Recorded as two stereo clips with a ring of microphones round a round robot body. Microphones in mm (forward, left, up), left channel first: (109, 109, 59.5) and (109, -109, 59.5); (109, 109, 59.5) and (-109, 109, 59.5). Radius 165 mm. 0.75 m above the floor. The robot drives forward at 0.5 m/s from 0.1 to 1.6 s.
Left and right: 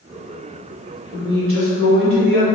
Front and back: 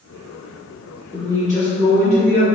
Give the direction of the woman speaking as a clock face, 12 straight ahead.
3 o'clock.